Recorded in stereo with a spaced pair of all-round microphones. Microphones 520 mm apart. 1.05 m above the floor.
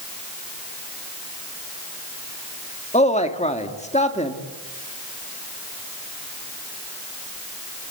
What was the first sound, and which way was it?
A man speaking, 15° left (ahead or behind).